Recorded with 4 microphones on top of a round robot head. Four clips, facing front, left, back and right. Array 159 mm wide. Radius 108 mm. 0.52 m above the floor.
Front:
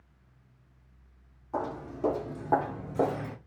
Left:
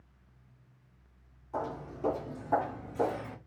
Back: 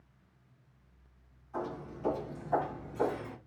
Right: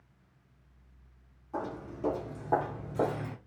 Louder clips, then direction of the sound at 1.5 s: Left 1 dB, front 5 dB; 5° left.